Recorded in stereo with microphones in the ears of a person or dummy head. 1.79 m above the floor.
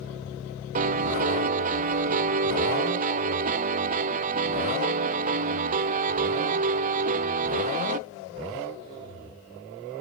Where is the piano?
40° right (ahead or behind), 0.8 m.